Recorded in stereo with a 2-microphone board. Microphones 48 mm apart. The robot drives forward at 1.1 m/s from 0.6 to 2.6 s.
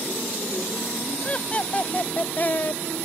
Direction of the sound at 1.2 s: 25° left (ahead or behind).